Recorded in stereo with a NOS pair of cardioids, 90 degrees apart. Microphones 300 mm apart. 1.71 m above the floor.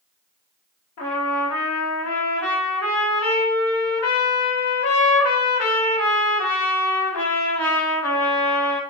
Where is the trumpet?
55° left, 2 m.